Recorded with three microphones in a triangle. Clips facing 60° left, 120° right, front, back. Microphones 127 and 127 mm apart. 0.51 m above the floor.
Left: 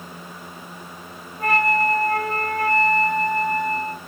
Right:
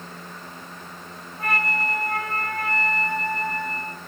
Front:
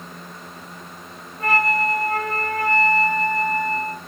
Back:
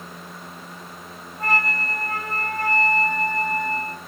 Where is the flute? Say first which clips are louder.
Left 7 dB, front 5 dB; 135° right, 1.8 m.